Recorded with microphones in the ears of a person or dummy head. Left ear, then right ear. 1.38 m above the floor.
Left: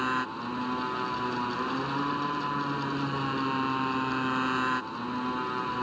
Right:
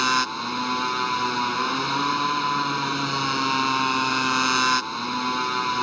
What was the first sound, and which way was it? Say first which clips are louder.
A motorcycle: right 8 dB; 80° right.